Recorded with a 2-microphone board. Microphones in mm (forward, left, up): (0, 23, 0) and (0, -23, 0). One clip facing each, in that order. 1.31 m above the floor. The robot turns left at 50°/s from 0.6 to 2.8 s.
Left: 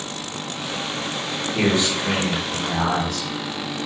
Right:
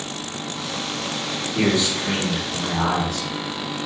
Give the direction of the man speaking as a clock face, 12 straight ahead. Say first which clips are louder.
Even; 10 o'clock.